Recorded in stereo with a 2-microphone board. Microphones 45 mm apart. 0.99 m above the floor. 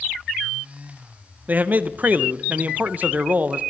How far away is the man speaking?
About 0.5 m.